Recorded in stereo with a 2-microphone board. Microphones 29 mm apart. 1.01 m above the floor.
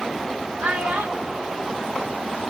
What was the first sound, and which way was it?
A child speaking, 75° right (ahead or behind).